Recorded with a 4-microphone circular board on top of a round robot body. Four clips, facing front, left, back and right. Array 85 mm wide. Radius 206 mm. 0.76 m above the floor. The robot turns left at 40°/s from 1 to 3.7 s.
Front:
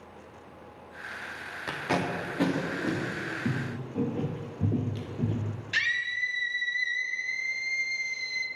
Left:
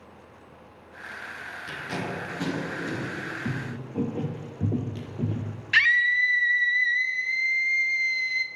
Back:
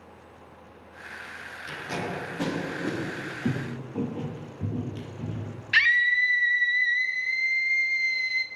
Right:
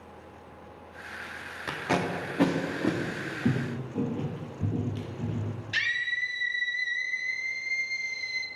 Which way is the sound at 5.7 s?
120° left.